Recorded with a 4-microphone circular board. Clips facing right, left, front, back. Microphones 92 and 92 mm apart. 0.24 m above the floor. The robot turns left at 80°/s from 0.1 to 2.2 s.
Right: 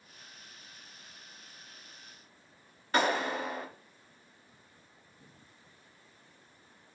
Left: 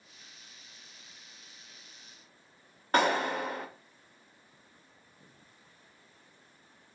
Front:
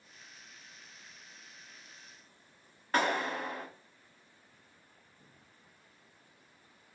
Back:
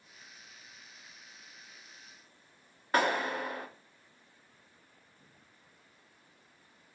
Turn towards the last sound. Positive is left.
turn(degrees=100)